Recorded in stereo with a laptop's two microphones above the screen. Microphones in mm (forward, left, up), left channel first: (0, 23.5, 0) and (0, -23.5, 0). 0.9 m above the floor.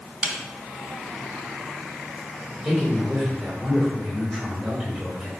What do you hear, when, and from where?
0.2 s a snare drum: 30° right (ahead or behind), 0.7 m
2.6 s a man speaking: 15° right (ahead or behind), 3 m